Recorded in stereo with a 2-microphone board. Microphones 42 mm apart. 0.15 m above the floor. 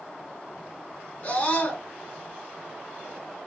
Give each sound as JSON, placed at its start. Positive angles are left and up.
{"t": 1.2, "sound": "a scream", "side_deg": 25, "distance_m": 1.6}